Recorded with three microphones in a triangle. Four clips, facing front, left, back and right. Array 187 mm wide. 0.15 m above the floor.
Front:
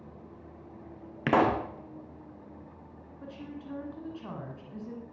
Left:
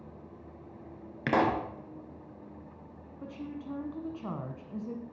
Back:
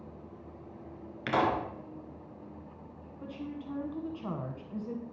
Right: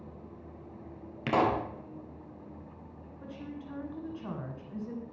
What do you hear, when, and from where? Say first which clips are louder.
1.3 s a pop: even, front 4 dB; 20° left, 1.4 m
3.2 s a woman speaking: left 3 dB, back 2 dB; 125° left, 1.5 m